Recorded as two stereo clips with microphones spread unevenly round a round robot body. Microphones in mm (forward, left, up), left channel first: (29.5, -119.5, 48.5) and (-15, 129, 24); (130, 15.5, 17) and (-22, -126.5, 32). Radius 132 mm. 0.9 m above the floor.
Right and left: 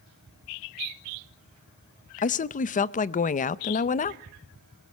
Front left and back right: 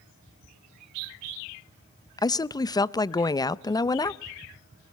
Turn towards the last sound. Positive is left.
turn(degrees=-25)